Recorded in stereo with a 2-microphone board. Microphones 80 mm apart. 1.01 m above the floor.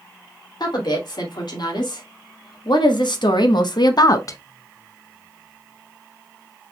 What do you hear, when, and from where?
0.6 s a woman speaking: 65° left (ahead or behind), 2.5 m; by 4.4 s 40° left (ahead or behind), 0.7 m